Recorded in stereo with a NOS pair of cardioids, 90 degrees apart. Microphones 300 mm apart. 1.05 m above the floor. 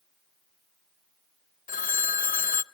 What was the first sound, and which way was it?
A phone ringing, 25° left.